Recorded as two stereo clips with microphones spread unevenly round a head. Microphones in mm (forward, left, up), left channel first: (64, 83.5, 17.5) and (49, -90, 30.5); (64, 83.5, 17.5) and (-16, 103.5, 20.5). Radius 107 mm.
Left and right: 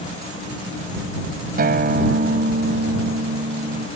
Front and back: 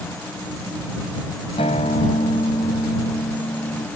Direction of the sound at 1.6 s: 60° right.